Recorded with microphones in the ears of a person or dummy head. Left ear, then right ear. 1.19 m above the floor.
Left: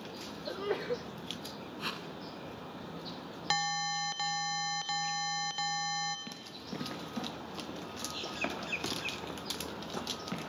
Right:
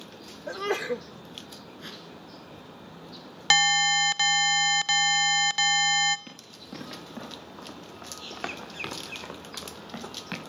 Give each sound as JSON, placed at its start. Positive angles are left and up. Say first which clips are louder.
{"t": 0.5, "sound": "a sneeze", "louder": "right 6 dB", "side_deg": -75, "distance_m": 0.5}
{"t": 1.8, "sound": "a whoosh", "louder": "left 5 dB", "side_deg": 30, "distance_m": 1.5}
{"t": 3.5, "sound": "an alarm", "louder": "right 12 dB", "side_deg": -60, "distance_m": 0.6}
{"t": 6.3, "sound": "running footsteps", "louder": "even", "side_deg": 0, "distance_m": 4.5}